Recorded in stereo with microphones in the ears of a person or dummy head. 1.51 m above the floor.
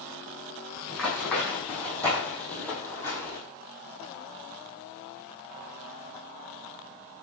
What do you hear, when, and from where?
0.9 s running footsteps: 10° left (ahead or behind), 4 m; by 3.4 s 20° left (ahead or behind), 2 m